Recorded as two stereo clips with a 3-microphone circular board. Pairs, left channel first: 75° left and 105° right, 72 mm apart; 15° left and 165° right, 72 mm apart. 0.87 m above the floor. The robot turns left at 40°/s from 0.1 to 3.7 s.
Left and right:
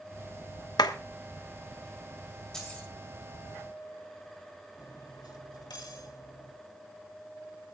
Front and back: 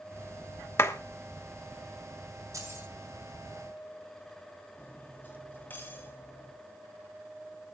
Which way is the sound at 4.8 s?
75° left.